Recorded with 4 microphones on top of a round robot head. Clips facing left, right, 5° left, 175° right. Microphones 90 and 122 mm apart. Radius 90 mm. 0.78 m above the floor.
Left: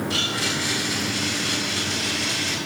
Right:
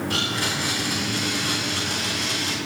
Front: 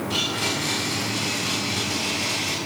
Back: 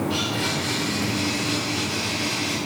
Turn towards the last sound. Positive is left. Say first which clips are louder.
# even, back 2 dB
turn(degrees=-50)